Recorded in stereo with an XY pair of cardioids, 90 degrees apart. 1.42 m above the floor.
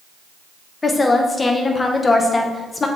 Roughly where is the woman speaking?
Ahead left.